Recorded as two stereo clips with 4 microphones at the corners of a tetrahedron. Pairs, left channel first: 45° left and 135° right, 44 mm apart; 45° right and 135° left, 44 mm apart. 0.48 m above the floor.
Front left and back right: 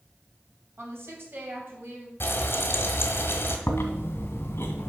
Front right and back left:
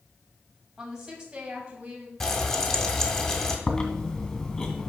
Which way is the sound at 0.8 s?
150° right.